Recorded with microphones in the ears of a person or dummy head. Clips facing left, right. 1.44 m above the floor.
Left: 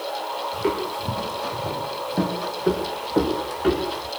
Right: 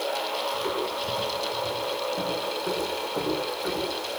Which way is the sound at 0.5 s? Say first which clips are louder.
Left 8 dB; 70° left (ahead or behind).